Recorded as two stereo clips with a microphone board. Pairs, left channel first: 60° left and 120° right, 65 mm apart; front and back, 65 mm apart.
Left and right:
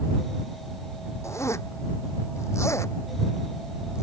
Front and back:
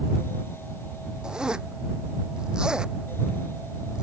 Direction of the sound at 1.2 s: 100° left.